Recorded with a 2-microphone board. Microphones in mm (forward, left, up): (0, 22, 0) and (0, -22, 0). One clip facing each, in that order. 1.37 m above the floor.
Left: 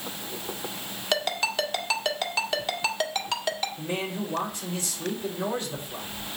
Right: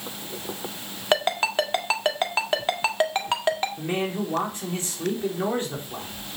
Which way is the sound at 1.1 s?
30° right (ahead or behind).